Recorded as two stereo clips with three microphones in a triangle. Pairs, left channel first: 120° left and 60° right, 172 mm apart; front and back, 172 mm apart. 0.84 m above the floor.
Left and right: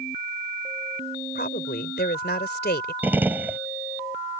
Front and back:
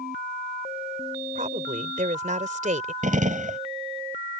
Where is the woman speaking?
135° left.